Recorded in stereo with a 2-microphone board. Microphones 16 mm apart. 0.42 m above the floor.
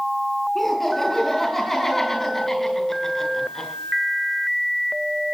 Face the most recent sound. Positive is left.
turn(degrees=25)  # may be behind; listen again after turning